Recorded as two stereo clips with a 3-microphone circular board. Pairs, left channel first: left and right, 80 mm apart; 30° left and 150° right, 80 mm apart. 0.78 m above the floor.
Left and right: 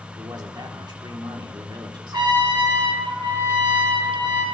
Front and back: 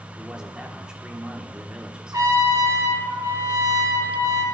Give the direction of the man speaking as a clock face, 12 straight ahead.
2 o'clock.